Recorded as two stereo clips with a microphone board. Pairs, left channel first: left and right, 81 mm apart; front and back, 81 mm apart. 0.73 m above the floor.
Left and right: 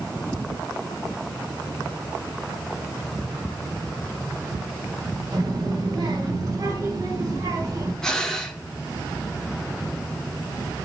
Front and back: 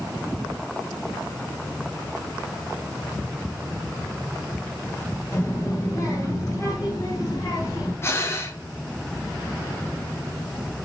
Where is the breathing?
10° left, 1.0 m.